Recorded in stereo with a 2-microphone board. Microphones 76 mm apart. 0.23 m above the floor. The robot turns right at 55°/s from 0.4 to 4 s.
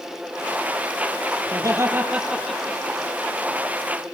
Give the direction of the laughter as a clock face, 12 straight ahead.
2 o'clock.